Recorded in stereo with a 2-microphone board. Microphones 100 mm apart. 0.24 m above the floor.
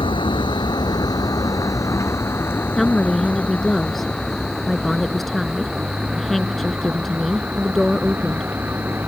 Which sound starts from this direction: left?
A vehicle, at 0.0 s.